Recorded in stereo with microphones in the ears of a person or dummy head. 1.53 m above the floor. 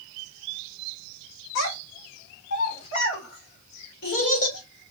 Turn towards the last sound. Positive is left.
turn(degrees=75)  # may be behind; listen again after turning